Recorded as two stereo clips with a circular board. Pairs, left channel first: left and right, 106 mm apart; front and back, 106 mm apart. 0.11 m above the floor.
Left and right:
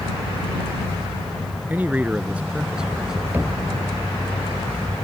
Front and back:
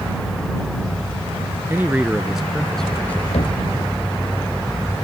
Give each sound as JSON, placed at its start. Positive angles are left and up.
{"t": 1.7, "sound": "a man speaking", "azimuth_deg": -140}
{"t": 3.3, "sound": "knocking", "azimuth_deg": -20}